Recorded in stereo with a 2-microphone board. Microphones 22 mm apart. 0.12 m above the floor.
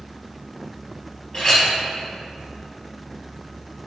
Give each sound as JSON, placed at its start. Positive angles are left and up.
{"t": 1.3, "sound": "a clink", "side_deg": 30, "distance_m": 2.0}